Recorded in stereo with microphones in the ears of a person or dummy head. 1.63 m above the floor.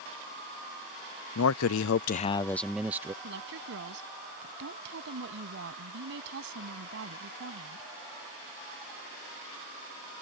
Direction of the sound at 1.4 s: 85° left.